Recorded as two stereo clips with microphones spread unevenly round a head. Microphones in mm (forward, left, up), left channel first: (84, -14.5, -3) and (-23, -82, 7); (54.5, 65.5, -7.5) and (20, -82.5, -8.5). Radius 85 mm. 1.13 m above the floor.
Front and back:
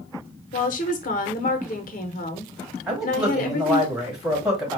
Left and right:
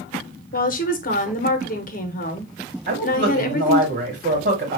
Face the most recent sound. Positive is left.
turn(degrees=-60)